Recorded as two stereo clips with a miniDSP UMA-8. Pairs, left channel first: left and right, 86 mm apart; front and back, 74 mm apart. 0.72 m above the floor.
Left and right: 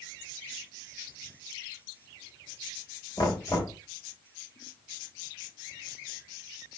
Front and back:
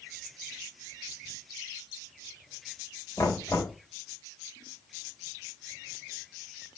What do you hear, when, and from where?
3.2 s knocking: 45° left, 3 m